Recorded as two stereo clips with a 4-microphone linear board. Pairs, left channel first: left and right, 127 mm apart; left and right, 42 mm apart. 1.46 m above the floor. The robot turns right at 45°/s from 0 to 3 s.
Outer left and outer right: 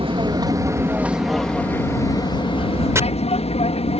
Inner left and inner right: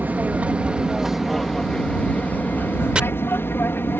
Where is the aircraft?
45° right (ahead or behind); by 4.0 s 55° left (ahead or behind).